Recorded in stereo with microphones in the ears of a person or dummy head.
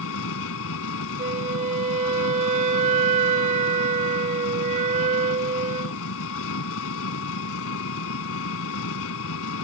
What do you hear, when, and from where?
0.0 s an engine running: 70° left (ahead or behind)
1.2 s a flute: 45° right (ahead or behind)